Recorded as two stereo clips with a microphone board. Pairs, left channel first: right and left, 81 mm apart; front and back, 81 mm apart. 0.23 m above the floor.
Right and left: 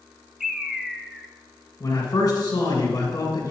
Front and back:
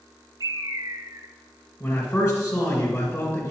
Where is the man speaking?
50° right, 2.0 m.